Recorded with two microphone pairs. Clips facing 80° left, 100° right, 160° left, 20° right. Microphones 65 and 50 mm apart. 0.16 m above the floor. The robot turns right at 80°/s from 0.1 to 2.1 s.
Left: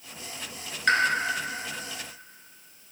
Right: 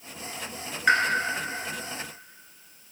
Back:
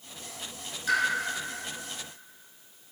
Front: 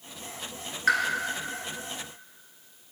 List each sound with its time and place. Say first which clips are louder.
0.9 s a pop: right 2 dB, front 3 dB; 20° right, 1.4 m; by 1.0 s 10° right, 1.4 m